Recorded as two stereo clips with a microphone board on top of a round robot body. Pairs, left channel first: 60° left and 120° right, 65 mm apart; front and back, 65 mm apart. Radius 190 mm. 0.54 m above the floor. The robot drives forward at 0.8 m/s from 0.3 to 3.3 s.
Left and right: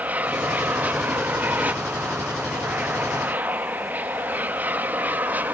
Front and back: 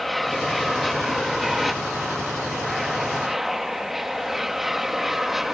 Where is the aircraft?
90° right; by 5.5 s 100° right.